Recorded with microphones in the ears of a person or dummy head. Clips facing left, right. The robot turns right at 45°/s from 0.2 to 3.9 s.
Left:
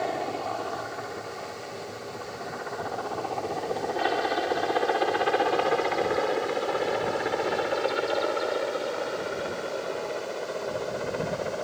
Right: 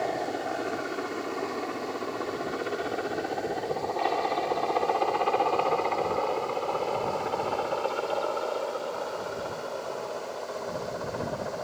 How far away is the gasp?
I don't hear a gasp.